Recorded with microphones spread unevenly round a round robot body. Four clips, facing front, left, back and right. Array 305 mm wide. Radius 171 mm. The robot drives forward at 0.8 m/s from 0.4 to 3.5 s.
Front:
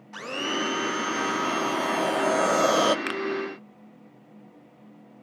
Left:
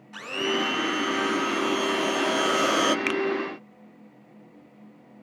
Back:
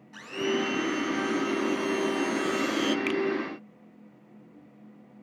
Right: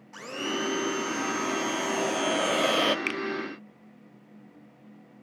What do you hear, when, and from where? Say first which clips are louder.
0.1 s a blender: left 4 dB, back 1 dB; straight ahead, 2.5 m; by 3.0 s 5° left, 0.6 m
3.1 s a finger snap: left 6 dB, back 3 dB; 50° left, 0.6 m; by 3.2 s 65° left, 0.6 m